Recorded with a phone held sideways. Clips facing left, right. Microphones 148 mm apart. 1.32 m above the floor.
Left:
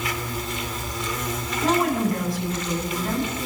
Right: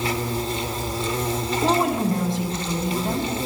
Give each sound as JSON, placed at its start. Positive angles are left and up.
{"t": 0.0, "sound": "an insect", "side_deg": -30, "distance_m": 1.7}
{"t": 1.6, "sound": "a woman speaking", "side_deg": -25, "distance_m": 8.5}